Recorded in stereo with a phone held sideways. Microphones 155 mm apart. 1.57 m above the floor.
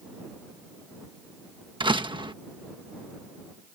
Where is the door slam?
30° right (ahead or behind).